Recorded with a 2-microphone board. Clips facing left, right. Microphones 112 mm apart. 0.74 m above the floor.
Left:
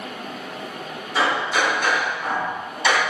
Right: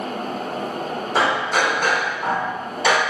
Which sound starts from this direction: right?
Hammering, at 1.1 s.